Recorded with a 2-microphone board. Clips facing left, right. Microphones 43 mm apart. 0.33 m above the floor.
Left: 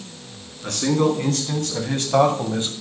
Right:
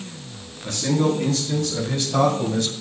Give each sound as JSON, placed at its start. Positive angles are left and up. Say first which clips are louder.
{"t": 0.6, "sound": "a man speaking", "louder": "left 2 dB", "side_deg": 70, "distance_m": 4.0}